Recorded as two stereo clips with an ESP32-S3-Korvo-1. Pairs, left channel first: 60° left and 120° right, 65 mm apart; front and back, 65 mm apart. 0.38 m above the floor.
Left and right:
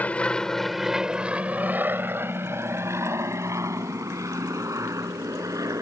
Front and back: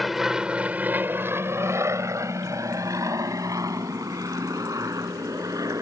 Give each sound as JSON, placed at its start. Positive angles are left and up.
{"t": 0.0, "sound": "an aircraft", "azimuth_deg": 90}